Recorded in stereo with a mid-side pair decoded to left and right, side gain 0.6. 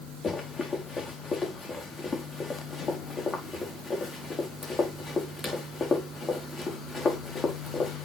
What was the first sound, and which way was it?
Running footsteps, 20° left.